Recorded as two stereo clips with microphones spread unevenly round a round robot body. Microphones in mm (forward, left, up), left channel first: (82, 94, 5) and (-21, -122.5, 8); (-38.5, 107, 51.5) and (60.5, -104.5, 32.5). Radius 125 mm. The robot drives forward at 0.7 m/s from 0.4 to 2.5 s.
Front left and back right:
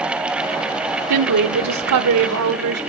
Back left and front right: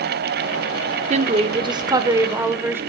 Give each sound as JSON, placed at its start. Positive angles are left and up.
{"t": 1.1, "sound": "a woman speaking", "azimuth_deg": -125, "distance_m": 1.6}